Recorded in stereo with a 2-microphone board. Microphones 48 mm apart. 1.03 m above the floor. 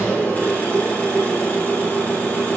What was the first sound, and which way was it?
An engine running, 40° left (ahead or behind).